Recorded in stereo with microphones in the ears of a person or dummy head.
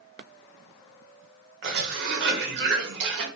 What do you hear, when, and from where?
1.6 s a cough: 65° right (ahead or behind), 1.1 m